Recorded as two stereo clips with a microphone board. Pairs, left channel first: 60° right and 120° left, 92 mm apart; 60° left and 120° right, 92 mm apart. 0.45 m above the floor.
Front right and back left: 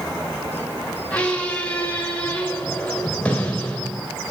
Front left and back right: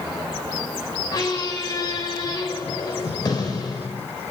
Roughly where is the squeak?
Ahead.